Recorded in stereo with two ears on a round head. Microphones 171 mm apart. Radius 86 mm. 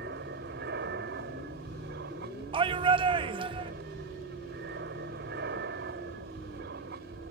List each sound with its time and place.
0.0 s an aircraft: 60° right (ahead or behind)
2.5 s a shout: 30° right (ahead or behind)